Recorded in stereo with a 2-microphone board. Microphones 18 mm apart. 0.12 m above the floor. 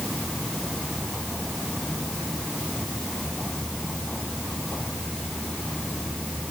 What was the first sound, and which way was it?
Only background noise.